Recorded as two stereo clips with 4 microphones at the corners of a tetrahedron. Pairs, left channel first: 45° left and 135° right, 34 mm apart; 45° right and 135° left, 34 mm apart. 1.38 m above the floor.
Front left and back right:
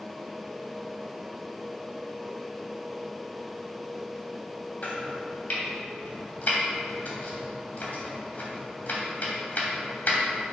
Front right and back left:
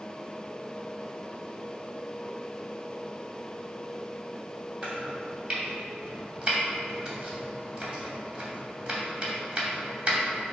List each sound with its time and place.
4.8 s chopping: 85° left, 2.5 m